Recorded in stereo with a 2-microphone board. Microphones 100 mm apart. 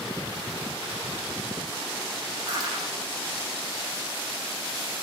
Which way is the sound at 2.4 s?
45° right (ahead or behind).